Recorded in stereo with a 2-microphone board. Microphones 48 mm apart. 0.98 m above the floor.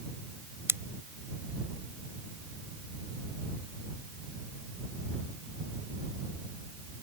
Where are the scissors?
65° right (ahead or behind).